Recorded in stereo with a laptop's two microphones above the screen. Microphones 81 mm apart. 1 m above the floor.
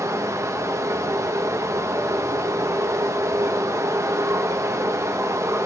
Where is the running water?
35° right (ahead or behind), 0.8 m.